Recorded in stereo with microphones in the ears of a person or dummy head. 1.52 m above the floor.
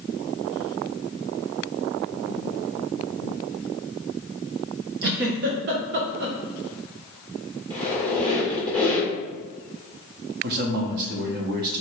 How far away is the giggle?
About 0.6 m.